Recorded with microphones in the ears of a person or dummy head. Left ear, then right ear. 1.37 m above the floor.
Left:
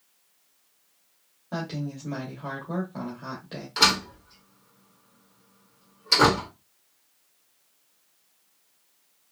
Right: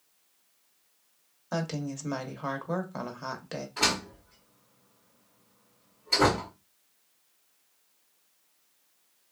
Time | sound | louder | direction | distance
1.5 | a woman speaking | even | 55° right (ahead or behind) | 0.8 m
3.8 | a door slam | left 7 dB | 70° left (ahead or behind) | 1.5 m